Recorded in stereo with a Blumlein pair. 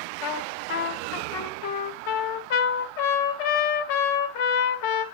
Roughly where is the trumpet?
Ahead left.